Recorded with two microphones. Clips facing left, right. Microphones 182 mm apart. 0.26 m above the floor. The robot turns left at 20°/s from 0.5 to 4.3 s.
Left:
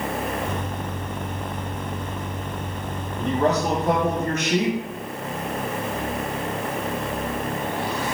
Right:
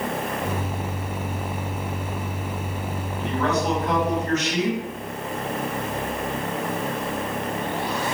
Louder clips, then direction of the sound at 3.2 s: Left 3 dB; 35° left (ahead or behind).